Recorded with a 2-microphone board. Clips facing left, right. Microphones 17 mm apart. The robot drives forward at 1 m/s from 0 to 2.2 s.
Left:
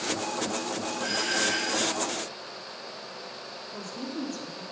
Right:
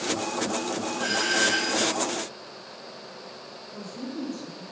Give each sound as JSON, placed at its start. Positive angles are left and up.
{"t": 1.0, "sound": "a doorbell", "side_deg": -25, "distance_m": 1.8}
{"t": 3.7, "sound": "a woman speaking", "side_deg": 50, "distance_m": 2.5}